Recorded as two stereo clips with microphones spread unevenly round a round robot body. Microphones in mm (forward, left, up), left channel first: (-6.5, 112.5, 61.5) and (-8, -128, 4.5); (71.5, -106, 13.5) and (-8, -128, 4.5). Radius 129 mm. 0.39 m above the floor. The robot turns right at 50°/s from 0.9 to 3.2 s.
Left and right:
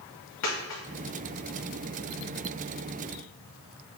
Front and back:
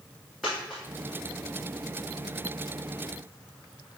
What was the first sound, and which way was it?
A dropped coin, 105° left.